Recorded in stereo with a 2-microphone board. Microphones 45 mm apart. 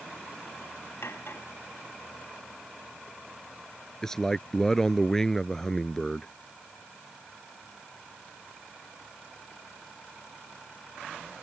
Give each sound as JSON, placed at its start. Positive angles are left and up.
{"t": 1.0, "sound": "cutlery clinking", "side_deg": 60}
{"t": 4.0, "sound": "a man speaking", "side_deg": 10}